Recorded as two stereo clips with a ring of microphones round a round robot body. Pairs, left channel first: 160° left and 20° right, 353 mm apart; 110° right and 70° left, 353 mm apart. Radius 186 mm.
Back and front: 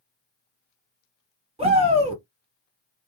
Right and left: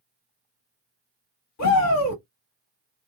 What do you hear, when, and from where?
1.6 s a shout: 90° right, 1.6 m